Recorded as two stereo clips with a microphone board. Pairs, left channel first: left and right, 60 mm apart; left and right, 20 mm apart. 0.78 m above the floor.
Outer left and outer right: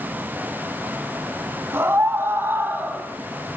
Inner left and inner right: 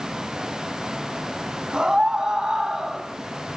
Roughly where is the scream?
Right.